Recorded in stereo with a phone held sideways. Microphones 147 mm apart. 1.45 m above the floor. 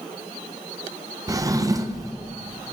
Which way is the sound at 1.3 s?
25° right (ahead or behind).